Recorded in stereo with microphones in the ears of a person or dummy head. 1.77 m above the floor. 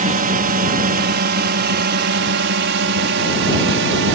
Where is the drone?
40° right (ahead or behind); by 4.1 s 60° right (ahead or behind).